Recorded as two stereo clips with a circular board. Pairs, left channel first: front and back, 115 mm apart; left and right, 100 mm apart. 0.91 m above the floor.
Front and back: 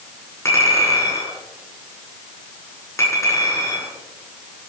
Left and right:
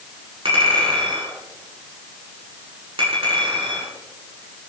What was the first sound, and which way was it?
A clink, 65° right.